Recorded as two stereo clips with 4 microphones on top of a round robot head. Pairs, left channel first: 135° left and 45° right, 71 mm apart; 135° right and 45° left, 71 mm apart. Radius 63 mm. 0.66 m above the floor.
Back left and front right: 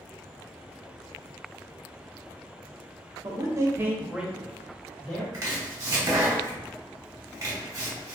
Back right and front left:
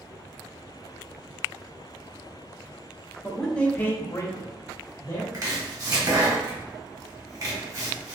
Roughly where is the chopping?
Ahead.